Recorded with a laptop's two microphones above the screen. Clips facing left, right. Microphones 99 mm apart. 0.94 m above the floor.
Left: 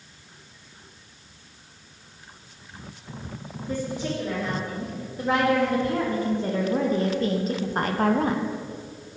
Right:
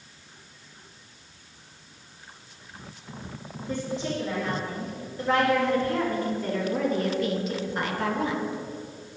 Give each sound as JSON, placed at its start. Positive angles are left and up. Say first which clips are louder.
{"t": 3.7, "sound": "a woman speaking", "louder": "left 1 dB", "side_deg": 10, "distance_m": 2.5}